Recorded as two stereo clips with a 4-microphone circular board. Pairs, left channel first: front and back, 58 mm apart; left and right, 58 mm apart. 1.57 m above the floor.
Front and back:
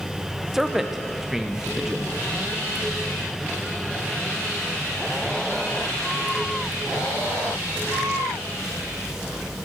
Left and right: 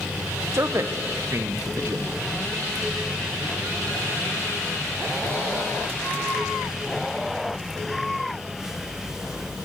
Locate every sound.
0.5 s a man speaking: 95° right, 0.6 m